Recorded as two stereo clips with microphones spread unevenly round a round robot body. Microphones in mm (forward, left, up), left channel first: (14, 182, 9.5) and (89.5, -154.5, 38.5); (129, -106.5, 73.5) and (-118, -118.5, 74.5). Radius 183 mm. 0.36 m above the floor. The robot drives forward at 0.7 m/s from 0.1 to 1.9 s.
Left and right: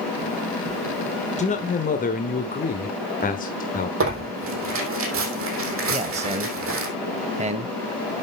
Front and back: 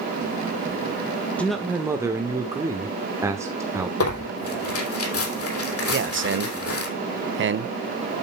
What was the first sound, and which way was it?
A man speaking, 80° left.